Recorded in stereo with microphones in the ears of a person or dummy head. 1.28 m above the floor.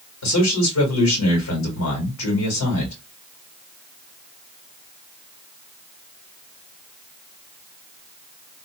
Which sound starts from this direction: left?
A man speaking, at 0.2 s.